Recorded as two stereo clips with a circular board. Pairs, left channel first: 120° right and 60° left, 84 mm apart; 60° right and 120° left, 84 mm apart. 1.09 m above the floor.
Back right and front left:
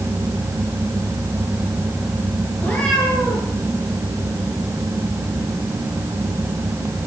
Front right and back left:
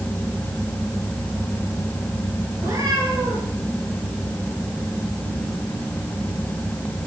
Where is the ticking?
I don't hear ticking.